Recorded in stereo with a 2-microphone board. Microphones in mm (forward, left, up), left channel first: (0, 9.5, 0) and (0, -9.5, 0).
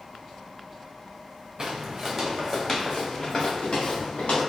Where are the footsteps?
30° right (ahead or behind), 0.8 m; by 4.4 s 65° left (ahead or behind), 1.4 m.